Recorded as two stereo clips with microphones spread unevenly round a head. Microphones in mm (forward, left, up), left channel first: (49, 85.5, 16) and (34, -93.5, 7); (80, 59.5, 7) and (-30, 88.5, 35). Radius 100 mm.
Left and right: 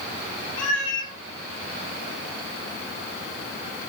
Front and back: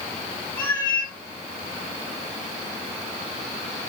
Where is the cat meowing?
65° left, 9.5 m.